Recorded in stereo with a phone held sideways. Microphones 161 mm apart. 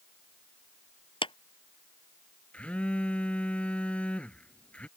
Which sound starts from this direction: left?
A clap, at 1.2 s.